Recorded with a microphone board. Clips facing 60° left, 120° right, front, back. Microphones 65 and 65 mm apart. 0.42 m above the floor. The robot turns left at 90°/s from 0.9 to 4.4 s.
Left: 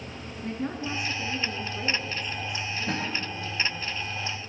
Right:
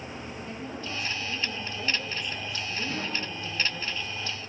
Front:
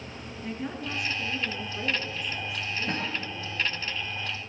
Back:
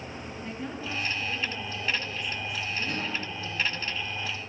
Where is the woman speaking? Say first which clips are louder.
Left 9 dB, front 3 dB; 85° left, 5 m; by 3.9 s straight behind, 5 m.